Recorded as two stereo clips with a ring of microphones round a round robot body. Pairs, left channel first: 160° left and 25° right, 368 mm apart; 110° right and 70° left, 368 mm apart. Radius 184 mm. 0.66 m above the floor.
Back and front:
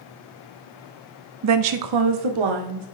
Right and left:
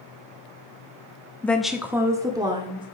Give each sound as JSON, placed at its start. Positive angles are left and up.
{"t": 1.4, "sound": "a woman speaking", "azimuth_deg": -30, "distance_m": 0.8}